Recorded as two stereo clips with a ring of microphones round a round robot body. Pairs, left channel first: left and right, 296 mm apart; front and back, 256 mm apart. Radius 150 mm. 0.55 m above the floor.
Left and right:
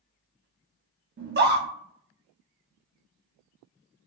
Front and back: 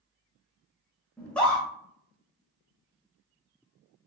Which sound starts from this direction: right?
A scream, at 1.2 s.